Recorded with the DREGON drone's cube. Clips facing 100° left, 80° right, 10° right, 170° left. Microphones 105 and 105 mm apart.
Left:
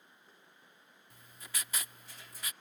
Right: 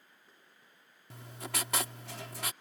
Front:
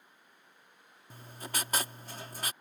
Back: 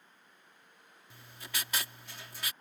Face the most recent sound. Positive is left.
turn(degrees=-60)